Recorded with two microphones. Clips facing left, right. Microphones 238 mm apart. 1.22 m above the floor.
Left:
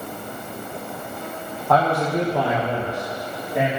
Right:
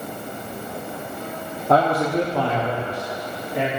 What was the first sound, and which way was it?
A man speaking, 30° right (ahead or behind).